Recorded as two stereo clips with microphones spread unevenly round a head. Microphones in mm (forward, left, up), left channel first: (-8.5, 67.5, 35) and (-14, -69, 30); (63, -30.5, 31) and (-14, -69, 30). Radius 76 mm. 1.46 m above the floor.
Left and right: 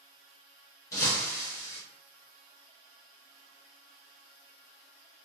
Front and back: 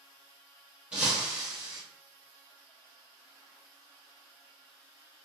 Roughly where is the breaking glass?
Behind left.